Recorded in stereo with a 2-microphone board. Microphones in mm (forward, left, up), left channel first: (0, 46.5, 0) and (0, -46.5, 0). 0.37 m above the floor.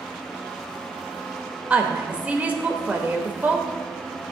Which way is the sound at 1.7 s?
15° right (ahead or behind).